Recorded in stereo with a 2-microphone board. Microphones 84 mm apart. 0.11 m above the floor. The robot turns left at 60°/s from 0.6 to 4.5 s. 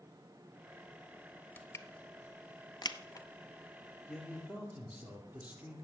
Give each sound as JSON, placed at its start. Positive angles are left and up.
{"t": 1.6, "sound": "crushing", "side_deg": 25, "distance_m": 0.6}
{"t": 4.1, "sound": "a man speaking", "side_deg": 5, "distance_m": 3.0}